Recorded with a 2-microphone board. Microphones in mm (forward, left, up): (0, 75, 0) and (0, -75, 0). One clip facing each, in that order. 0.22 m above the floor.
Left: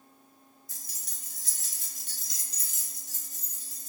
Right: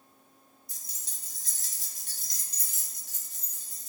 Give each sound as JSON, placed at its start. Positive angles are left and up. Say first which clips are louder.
{"t": 0.7, "sound": "keys jangling", "louder": "left 2 dB", "side_deg": -15, "distance_m": 0.8}